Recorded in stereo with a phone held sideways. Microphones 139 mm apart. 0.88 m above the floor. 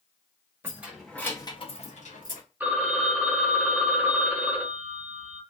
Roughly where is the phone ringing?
Centre.